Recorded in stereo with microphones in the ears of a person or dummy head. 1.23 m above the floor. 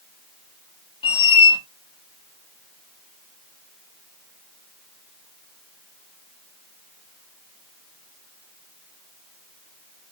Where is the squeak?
30° left (ahead or behind), 0.8 m.